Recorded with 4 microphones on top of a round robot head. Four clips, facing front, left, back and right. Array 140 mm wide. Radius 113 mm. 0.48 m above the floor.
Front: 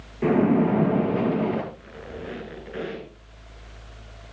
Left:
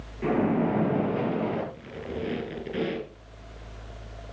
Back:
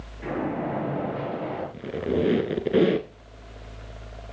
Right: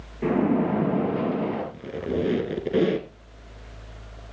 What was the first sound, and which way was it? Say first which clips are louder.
A splash: right 2 dB, front 9 dB; 20° right.